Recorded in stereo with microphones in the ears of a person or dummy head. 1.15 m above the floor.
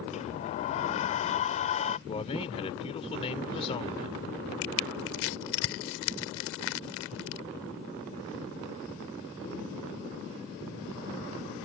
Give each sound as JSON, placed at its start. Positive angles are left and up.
{"t": 0.1, "sound": "a sliding door", "side_deg": 35}
{"t": 2.1, "sound": "a man speaking", "side_deg": 30}
{"t": 4.6, "sound": "crushing", "side_deg": 75}